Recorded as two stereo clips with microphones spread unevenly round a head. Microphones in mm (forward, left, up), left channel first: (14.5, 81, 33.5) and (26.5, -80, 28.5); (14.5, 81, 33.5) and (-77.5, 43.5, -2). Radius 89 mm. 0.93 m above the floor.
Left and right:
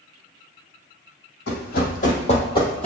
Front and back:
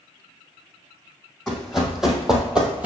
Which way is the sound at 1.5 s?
95° left.